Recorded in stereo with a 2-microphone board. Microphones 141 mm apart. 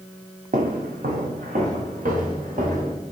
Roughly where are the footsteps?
Right.